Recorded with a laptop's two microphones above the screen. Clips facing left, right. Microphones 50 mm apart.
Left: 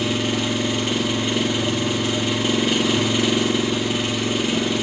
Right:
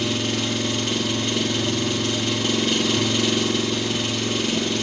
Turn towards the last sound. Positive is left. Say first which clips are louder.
# left 2 dB
turn(degrees=15)  # may be behind; listen again after turning